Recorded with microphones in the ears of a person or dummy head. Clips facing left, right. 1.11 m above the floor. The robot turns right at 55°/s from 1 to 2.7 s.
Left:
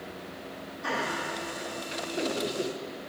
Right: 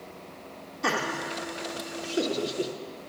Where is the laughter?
70° right (ahead or behind), 0.7 m; by 2.7 s 15° right (ahead or behind), 0.7 m.